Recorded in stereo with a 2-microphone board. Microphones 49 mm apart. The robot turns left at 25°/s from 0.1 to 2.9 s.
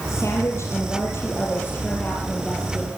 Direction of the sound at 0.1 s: 85° left.